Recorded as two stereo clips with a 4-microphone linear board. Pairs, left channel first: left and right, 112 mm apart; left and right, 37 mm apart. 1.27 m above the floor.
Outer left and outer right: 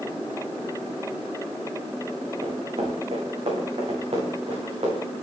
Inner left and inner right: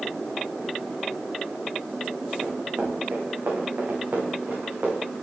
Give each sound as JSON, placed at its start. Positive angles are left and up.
{"t": 2.4, "sound": "running footsteps", "side_deg": -65, "distance_m": 6.0}